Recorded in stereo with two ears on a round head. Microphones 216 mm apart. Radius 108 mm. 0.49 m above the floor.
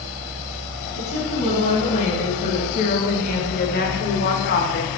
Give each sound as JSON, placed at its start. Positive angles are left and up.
{"t": 0.9, "sound": "a woman speaking", "side_deg": 30, "distance_m": 4.0}